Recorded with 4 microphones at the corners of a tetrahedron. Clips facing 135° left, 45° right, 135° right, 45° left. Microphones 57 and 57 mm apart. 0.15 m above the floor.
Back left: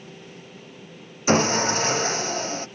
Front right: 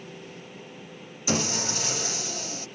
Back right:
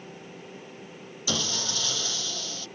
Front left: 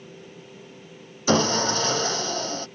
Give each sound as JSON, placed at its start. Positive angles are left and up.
{"t": 1.3, "sound": "sawing", "azimuth_deg": 90}